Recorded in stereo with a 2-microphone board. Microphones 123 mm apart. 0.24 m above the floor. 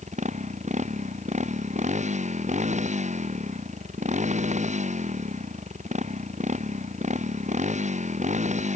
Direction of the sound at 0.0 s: 75° right (ahead or behind).